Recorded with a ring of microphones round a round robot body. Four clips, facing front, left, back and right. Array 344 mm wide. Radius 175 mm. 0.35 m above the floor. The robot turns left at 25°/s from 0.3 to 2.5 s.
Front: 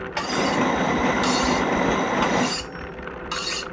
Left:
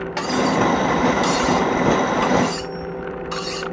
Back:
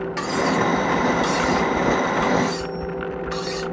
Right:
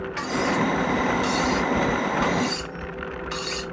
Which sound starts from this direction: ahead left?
Cutlery clinking, at 0.2 s.